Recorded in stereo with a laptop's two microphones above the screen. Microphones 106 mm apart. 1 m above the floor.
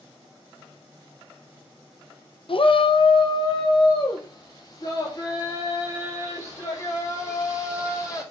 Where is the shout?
55° left (ahead or behind), 0.9 m; by 8.2 s 30° left (ahead or behind), 5.5 m.